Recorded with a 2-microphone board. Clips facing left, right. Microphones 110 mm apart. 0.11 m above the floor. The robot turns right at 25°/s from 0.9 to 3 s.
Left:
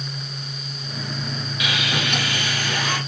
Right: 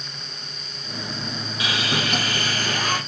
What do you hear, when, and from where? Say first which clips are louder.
1.6 s sawing: right 1 dB; 130° right, 1.1 m; by 3.0 s 95° right, 1.1 m